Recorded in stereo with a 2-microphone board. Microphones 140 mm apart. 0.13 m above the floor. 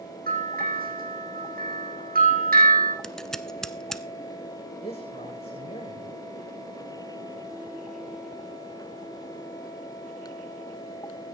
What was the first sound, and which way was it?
A bell, 80° right.